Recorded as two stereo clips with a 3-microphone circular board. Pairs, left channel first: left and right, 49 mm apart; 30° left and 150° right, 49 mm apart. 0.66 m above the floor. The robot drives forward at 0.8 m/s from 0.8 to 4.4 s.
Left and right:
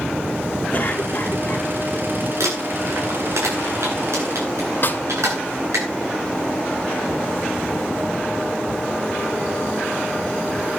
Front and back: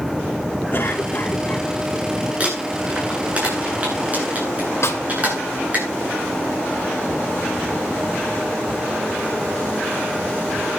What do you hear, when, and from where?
0.7 s a cough: 50° left, 1.9 m; by 1.7 s 75° left, 1.6 m
2.4 s crumpling: 85° right, 10 m; by 5.8 s 95° right, 10 m
4.8 s a snare drum: 50° left, 1.9 m